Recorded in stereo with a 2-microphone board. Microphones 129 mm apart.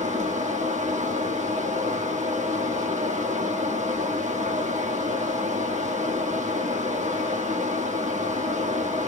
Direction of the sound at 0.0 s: 75° right (ahead or behind).